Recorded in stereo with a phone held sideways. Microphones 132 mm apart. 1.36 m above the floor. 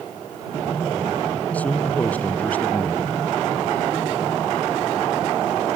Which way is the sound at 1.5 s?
10° left (ahead or behind).